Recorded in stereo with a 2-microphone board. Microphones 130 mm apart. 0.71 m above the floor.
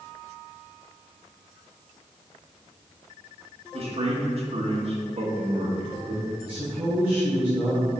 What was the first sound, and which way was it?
A man speaking, 50° right (ahead or behind).